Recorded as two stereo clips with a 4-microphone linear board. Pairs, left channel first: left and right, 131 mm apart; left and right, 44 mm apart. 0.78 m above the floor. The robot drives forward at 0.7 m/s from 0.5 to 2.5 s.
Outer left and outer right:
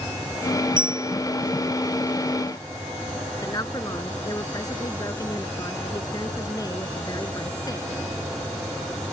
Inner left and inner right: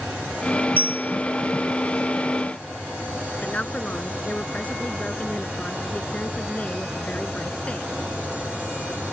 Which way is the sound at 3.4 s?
30° left (ahead or behind).